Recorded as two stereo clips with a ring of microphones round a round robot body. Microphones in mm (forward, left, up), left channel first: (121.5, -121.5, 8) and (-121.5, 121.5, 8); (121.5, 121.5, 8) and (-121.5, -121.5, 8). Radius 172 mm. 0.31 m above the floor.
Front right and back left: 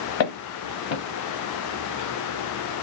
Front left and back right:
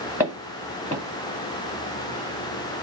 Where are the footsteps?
50° right, 1.3 m.